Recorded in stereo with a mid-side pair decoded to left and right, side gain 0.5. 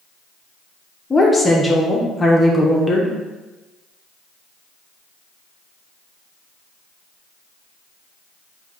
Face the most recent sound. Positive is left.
turn(degrees=20)